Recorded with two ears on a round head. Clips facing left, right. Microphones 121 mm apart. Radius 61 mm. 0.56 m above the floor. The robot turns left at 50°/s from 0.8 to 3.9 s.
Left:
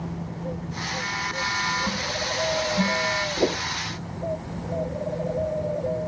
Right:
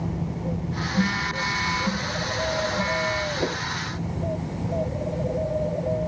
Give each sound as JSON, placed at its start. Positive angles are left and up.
{"t": 1.0, "sound": "a phone buzzing", "azimuth_deg": -120}
{"t": 3.4, "sound": "a whoosh", "side_deg": 30}